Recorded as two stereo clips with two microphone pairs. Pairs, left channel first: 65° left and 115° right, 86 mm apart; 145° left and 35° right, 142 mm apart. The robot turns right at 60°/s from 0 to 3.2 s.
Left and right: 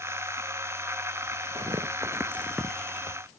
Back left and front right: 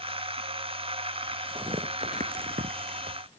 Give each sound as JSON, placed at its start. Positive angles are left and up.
{"t": 1.6, "sound": "tearing paper", "azimuth_deg": -95}